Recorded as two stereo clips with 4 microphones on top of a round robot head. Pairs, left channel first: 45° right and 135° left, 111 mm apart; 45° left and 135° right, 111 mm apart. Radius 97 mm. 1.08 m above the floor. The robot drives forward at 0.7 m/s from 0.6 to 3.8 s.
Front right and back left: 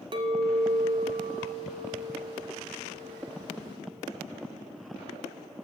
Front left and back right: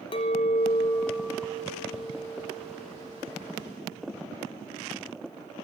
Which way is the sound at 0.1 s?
90° left.